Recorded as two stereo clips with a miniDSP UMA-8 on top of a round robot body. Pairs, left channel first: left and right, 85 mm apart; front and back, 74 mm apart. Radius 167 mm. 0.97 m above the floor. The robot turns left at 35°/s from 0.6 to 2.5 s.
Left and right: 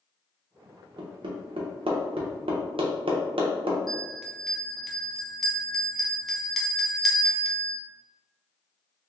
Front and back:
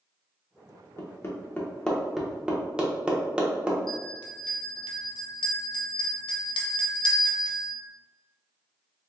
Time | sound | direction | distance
1.0 | hammering | 50° right | 0.7 m
3.9 | a bell | 5° left | 0.6 m